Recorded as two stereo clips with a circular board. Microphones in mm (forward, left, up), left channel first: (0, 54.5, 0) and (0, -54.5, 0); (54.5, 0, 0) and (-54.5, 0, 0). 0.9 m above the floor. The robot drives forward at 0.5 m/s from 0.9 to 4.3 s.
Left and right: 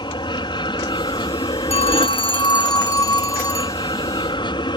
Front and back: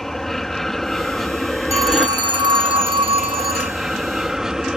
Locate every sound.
0.0 s an aircraft: 85° left; by 4.8 s 95° left
1.7 s a phone ringing: 115° left; by 3.8 s 155° left